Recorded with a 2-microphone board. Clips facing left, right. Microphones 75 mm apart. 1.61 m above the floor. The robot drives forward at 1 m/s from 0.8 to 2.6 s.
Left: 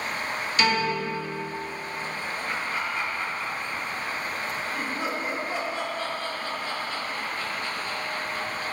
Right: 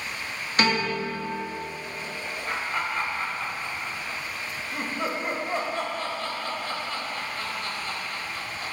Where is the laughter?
40° right (ahead or behind), 2 m; by 8.7 s 45° right (ahead or behind), 2.0 m.